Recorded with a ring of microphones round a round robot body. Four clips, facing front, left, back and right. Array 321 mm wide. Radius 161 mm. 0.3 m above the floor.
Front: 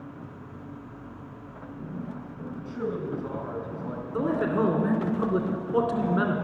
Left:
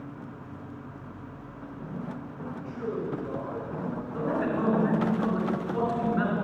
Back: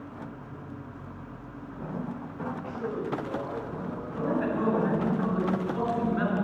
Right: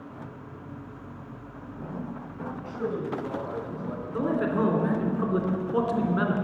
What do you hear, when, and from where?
2.6 s a man speaking: 30° right, 3.5 m
4.1 s a man speaking: 30° right, 3 m